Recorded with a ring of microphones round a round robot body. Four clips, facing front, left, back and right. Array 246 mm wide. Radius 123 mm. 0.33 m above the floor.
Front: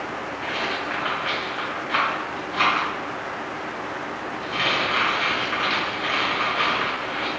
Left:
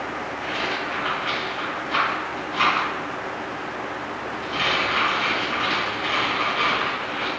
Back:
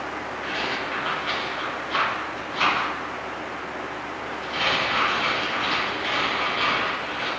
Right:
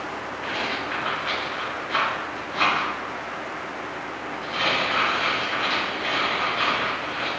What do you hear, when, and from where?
0.4 s a rattle: 15° left, 1.8 m